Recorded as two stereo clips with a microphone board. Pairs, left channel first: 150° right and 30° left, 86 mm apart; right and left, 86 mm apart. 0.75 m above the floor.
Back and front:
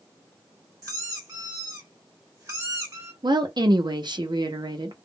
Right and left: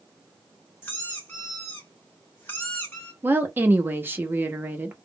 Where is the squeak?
25° right, 1.5 m.